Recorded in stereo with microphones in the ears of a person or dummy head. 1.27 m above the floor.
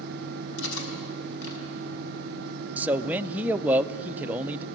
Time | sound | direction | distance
0.6 | cutlery clinking | 75° left (ahead or behind) | 5.5 m
2.8 | a man speaking | 10° right (ahead or behind) | 0.6 m